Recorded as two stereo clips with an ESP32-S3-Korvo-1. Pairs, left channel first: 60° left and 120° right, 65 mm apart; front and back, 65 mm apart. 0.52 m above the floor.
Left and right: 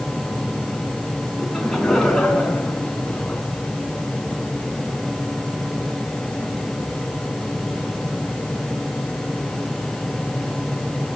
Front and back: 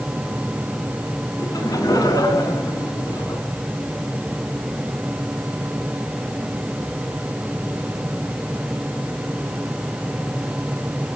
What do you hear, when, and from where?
1.4 s laughter: 25° right, 5.5 m; by 3.4 s 15° right, 6.5 m